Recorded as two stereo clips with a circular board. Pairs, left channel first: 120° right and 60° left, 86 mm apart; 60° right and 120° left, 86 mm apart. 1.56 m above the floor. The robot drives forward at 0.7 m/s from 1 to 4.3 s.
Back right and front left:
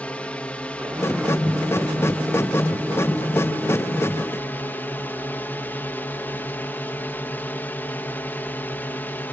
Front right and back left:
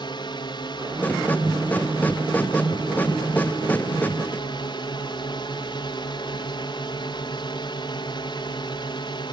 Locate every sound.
0.0 s a drone: 45° right; by 9.3 s 55° right